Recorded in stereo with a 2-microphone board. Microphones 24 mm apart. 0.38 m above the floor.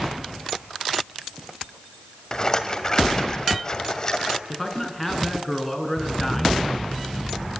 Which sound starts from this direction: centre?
A man speaking, at 4.5 s.